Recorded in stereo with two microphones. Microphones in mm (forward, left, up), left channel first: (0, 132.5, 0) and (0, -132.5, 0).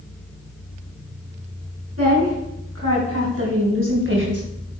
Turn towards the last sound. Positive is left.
turn(degrees=-45)  # may be behind; listen again after turning